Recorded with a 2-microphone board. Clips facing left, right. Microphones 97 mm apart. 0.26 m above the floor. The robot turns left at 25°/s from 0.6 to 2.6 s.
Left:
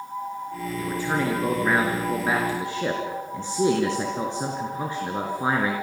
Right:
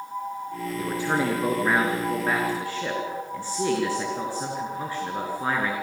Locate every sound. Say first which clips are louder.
0.8 s a man speaking: right 1 dB; 155° right, 4 m; by 5.7 s 160° left, 4 m